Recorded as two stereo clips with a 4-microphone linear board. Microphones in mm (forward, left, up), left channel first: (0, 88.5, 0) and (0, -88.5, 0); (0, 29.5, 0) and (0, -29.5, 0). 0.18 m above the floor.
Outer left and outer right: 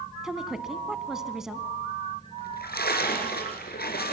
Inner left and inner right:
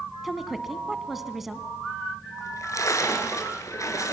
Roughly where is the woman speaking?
Centre.